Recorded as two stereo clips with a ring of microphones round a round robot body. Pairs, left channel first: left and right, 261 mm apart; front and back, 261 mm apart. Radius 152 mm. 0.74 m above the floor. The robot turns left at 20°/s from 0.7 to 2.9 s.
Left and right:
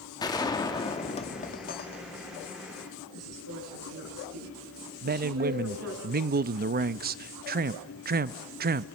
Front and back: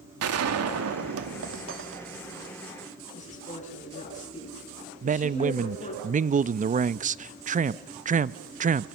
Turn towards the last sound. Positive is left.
turn(degrees=-130)